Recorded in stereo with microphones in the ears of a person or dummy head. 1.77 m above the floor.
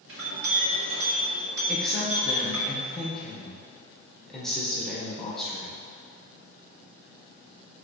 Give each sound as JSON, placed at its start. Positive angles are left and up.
{"t": 0.1, "sound": "a clink", "side_deg": -65, "distance_m": 2.5}
{"t": 1.7, "sound": "a woman speaking", "side_deg": 0, "distance_m": 1.6}